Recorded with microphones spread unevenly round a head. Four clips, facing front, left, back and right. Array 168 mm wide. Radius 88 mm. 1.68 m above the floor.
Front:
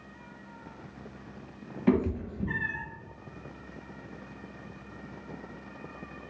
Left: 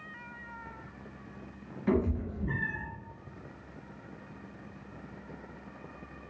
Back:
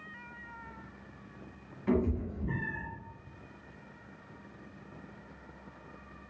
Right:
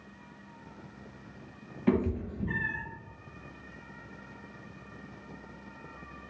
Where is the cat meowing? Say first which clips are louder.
Right 1 dB, front 4 dB; 20° right, 0.9 m.